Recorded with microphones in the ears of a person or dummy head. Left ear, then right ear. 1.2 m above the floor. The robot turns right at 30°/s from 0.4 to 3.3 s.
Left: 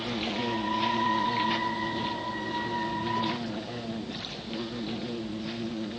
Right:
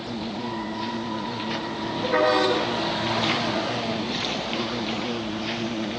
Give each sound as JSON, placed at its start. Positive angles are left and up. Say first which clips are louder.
{"t": 0.0, "sound": "an insect", "louder": "left 1 dB", "azimuth_deg": 135}